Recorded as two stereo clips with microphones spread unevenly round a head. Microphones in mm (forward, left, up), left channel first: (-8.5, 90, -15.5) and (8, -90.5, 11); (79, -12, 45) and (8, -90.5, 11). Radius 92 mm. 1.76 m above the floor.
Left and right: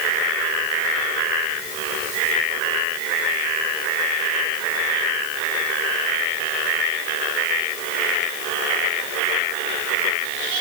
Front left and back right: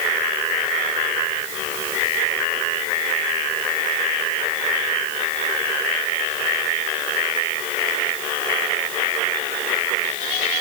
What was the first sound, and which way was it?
Only background noise.